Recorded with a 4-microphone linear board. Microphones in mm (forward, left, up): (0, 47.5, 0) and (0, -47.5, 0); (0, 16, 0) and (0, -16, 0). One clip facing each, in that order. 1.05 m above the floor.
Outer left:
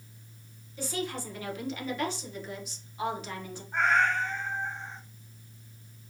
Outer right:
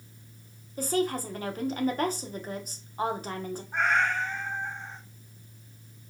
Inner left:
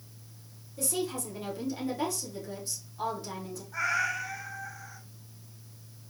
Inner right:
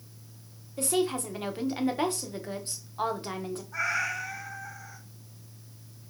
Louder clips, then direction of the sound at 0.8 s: Outer right 7 dB, inner right 5 dB; 40° right (ahead or behind).